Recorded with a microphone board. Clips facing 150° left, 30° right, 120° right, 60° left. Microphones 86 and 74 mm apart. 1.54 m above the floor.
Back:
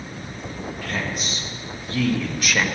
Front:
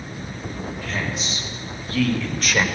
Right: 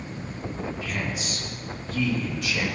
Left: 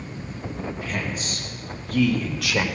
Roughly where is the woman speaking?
Left.